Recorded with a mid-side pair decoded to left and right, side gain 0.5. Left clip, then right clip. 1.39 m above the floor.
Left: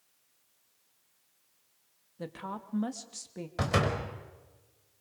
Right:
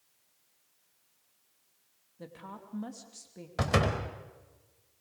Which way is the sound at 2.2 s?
40° left.